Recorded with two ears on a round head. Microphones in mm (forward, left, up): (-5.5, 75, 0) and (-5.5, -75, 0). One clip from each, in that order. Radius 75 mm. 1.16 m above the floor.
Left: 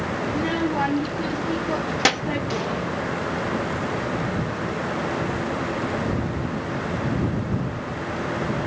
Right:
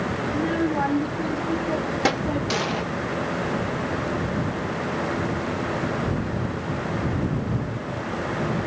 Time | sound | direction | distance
0.3 | a child speaking | 60° left (ahead or behind) | ?
2.5 | an explosion | 40° right (ahead or behind) | ?